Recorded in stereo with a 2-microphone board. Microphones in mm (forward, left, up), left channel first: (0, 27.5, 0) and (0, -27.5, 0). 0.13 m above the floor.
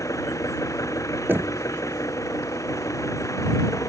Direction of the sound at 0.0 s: 80° left.